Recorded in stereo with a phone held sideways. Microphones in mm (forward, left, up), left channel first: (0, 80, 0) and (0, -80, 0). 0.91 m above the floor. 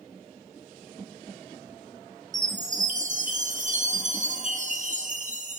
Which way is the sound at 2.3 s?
55° right (ahead or behind).